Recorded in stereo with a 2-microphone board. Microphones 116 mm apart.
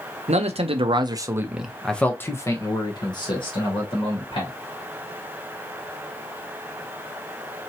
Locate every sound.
0.3 s a man speaking: 65° right (ahead or behind), 0.8 m; by 4.5 s 50° left (ahead or behind), 1.9 m